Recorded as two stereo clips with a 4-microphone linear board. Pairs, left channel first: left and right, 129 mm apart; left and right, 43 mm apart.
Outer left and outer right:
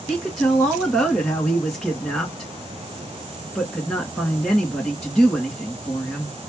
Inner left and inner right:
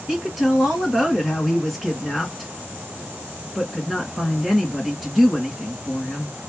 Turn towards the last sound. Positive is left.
turn(degrees=5)  # may be behind; listen again after turning